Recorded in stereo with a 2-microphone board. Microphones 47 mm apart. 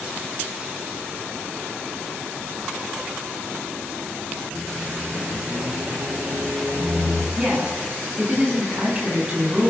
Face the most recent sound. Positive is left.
turn(degrees=-20)  # may be behind; listen again after turning